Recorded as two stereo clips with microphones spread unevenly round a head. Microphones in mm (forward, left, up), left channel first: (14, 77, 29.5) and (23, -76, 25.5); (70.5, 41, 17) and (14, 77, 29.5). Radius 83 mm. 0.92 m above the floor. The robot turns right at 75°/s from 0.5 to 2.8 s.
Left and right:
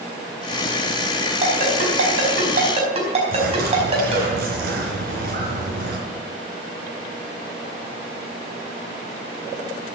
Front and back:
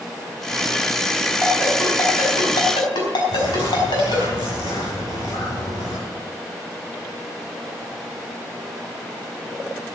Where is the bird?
60° right, 4 m.